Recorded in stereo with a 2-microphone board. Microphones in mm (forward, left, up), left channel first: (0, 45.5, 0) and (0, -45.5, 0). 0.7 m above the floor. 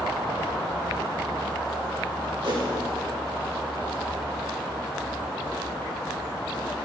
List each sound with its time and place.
2.4 s a whoosh: 60° right (ahead or behind), 1.6 m